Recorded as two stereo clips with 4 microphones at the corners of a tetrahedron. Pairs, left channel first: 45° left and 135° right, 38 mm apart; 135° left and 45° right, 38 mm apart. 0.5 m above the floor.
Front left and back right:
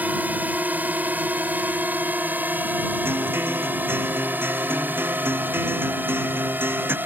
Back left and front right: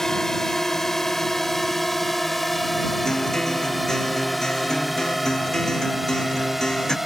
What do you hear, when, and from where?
0.0 s a drone: 150° right; by 7.1 s 125° right
3.0 s a guitar: 150° right